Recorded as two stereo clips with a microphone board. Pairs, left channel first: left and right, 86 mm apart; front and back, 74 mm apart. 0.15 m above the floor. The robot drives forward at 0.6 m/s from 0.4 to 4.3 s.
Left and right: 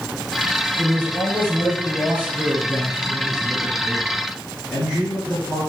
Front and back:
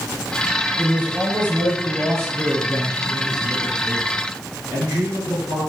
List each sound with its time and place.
0.8 s a man speaking: 120° right, 1.5 m; by 5.6 s 165° right, 3 m